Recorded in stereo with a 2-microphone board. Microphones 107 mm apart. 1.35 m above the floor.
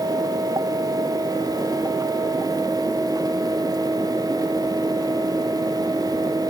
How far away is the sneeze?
No sneeze in this recording.